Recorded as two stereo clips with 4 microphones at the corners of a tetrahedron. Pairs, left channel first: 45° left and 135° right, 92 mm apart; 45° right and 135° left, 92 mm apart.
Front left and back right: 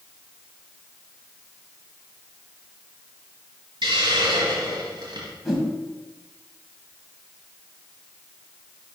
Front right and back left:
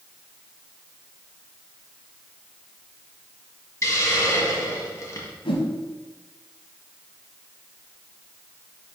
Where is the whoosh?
45° right, 1.7 m.